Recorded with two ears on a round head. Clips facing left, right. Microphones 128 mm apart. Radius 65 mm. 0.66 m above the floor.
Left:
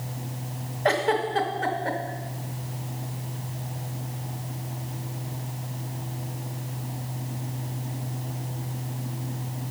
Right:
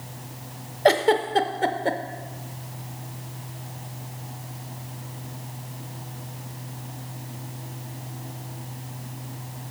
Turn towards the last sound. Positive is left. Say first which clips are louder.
# right 4 dB
turn(degrees=-35)  # may be behind; listen again after turning